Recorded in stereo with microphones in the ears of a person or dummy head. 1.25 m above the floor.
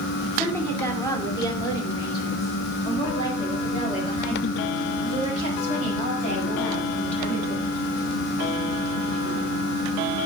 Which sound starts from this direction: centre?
A woman speaking, at 0.3 s.